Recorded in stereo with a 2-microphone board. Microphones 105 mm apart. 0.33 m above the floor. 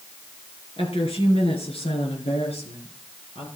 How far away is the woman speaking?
About 4.5 m.